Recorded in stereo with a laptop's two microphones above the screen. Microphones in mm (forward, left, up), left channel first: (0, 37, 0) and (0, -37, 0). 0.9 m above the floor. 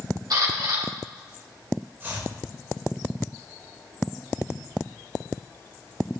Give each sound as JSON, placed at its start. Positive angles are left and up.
{"t": 0.3, "sound": "a camera shutter", "side_deg": -65, "distance_m": 3.5}
{"t": 2.0, "sound": "chopping", "side_deg": -35, "distance_m": 3.0}